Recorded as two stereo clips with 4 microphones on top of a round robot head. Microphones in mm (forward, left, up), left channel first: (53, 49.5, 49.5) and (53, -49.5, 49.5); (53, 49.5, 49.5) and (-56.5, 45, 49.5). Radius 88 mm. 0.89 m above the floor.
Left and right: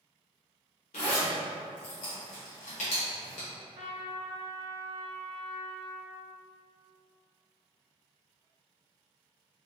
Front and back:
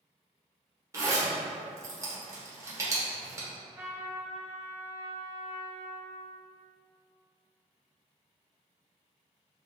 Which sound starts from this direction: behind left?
A zipper, at 0.9 s.